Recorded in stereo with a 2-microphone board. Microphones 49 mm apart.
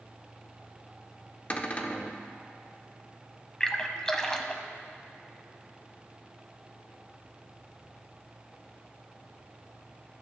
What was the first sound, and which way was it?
A cupboard door, 30° left (ahead or behind).